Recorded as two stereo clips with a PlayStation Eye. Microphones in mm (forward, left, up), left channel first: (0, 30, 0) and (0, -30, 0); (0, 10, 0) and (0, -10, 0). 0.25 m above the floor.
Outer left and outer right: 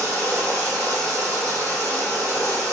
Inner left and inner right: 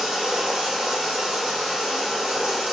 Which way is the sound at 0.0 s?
60° right (ahead or behind).